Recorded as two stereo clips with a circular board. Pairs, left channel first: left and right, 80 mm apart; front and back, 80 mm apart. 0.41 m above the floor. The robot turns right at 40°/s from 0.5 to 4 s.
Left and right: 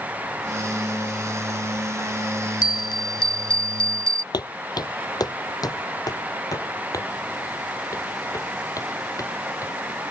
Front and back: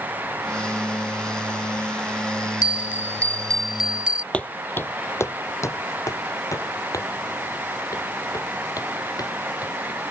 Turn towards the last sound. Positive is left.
turn(degrees=45)